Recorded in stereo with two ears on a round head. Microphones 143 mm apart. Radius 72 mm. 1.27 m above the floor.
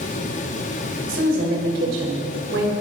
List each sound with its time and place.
1.1 s a woman speaking: 85° right, 4.5 m